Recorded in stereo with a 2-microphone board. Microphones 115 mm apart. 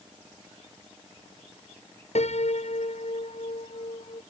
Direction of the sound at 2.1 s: 70° left (ahead or behind).